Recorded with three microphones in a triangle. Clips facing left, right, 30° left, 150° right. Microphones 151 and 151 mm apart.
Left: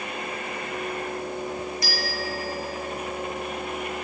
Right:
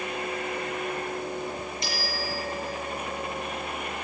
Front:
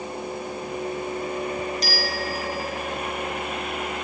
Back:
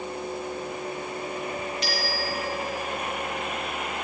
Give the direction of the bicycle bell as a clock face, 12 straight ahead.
1 o'clock.